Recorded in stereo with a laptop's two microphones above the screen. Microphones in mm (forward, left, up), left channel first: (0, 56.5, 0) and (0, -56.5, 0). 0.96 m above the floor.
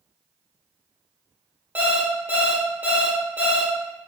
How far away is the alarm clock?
About 0.8 m.